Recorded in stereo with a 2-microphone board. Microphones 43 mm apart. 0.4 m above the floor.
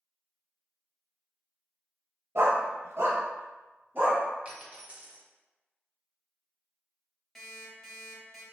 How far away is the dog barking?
About 0.5 m.